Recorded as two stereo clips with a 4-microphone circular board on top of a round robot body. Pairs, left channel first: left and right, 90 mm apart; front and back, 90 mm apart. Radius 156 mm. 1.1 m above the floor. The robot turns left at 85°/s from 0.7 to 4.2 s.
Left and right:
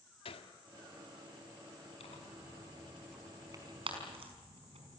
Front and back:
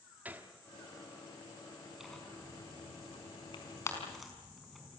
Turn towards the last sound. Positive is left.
turn(degrees=-90)